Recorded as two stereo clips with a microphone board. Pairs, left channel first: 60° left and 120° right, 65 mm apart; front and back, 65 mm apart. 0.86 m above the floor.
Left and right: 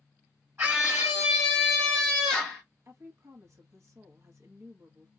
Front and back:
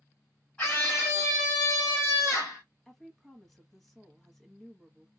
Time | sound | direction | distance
0.6 | a scream | 60° right | 1.6 m
2.9 | a woman speaking | 85° right | 1.1 m